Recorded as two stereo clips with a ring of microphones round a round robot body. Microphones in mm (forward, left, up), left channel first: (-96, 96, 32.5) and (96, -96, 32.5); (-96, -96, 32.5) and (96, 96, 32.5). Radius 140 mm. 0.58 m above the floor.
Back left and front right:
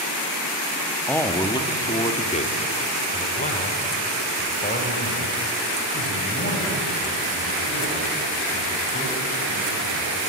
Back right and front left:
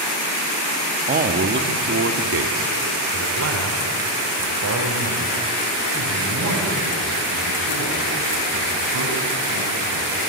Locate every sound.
1.1 s a man speaking: 60° left, 1.2 m; by 10.2 s 75° left, 7.5 m